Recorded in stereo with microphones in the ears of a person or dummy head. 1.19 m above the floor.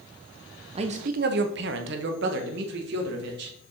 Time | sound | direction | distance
0.8 | a man speaking | 30° right (ahead or behind) | 0.7 m